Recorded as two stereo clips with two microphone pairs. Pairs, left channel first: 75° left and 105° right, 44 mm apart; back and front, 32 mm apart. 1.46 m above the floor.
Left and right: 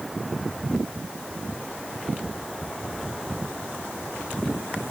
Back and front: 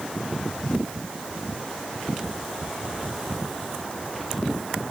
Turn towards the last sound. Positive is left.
No sound to turn to.